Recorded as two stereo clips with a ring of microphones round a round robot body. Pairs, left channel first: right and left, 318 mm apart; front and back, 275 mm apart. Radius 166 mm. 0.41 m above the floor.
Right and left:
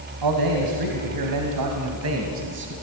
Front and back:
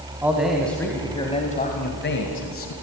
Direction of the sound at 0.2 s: 95° left.